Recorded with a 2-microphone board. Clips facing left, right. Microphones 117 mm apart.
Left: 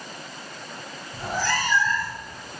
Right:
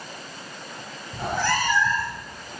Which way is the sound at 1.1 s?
60° right (ahead or behind).